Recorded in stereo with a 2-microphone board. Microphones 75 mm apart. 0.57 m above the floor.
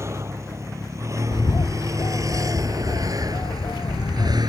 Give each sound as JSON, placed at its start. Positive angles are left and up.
{"t": 0.0, "sound": "a vehicle", "side_deg": -35}
{"t": 1.3, "sound": "a bird", "side_deg": 65}